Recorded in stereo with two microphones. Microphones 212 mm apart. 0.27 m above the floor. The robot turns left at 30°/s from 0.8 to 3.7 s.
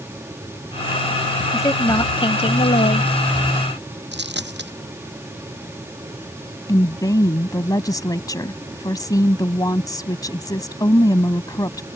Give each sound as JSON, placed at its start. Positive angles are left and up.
{"t": 1.5, "sound": "a woman speaking", "azimuth_deg": 160}
{"t": 4.1, "sound": "a dropped coin", "side_deg": -55}
{"t": 6.7, "sound": "a woman speaking", "side_deg": 20}